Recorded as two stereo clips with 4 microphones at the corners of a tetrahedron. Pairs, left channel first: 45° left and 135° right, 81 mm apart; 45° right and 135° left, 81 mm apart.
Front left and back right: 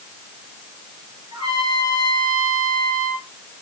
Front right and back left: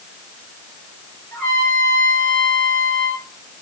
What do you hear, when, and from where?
1.3 s a trumpet: 115° right, 9 m